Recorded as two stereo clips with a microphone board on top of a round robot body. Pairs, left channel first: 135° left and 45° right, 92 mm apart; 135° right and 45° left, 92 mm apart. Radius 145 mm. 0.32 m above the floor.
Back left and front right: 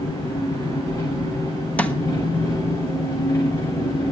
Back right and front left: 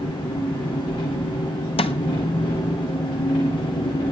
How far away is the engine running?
About 10 m.